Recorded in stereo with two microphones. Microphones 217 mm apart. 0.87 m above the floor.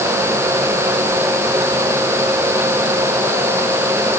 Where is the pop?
I don't hear a pop.